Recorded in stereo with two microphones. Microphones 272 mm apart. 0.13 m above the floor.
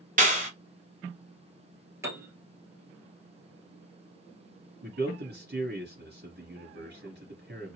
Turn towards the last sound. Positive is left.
turn(degrees=-40)  # may be behind; listen again after turning